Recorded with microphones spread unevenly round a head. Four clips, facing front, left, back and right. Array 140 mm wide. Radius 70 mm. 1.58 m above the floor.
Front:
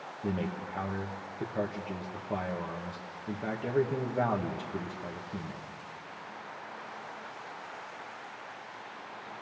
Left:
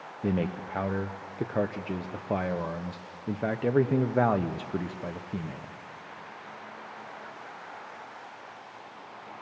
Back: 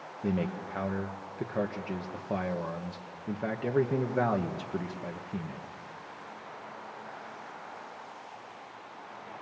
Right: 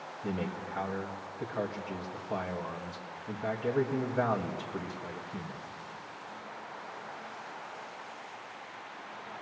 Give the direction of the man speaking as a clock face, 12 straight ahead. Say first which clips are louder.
Left 6 dB, back 2 dB; 9 o'clock.